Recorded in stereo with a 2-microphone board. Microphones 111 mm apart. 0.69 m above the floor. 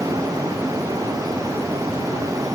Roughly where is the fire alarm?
No fire alarm in this recording.